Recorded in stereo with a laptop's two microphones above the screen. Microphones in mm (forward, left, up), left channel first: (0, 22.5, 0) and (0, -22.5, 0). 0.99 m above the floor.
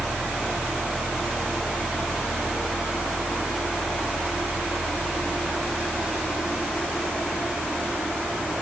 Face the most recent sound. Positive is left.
turn(degrees=-20)  # may be behind; listen again after turning